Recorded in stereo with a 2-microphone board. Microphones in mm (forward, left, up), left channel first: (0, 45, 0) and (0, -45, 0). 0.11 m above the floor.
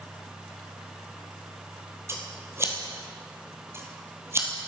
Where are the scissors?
30° right (ahead or behind), 1.5 m.